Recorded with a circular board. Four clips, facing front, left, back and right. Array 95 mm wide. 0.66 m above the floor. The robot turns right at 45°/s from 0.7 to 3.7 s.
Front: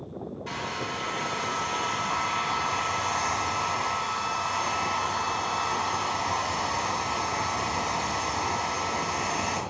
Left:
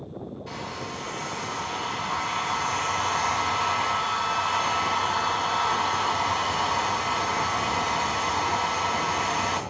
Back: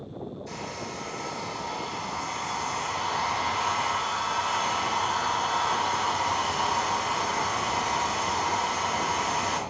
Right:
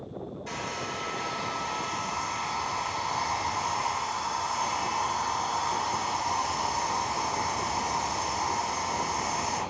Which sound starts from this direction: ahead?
A hair dryer, at 0.5 s.